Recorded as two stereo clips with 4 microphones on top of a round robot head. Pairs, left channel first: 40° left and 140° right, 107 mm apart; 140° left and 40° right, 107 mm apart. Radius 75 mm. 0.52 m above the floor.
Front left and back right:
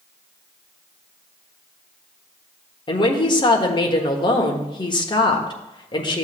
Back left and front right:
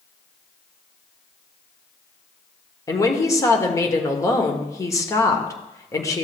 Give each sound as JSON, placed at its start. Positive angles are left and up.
{"t": 2.9, "sound": "a woman speaking", "azimuth_deg": 80, "distance_m": 1.4}